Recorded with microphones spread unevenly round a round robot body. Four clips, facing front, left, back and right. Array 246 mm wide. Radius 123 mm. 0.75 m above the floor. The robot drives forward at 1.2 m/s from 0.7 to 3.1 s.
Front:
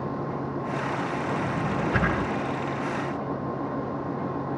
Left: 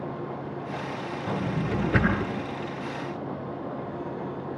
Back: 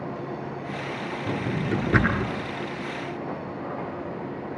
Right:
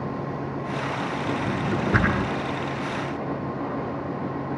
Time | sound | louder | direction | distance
1.3 | a drawer | right 1 dB, even | 145° right | 7 m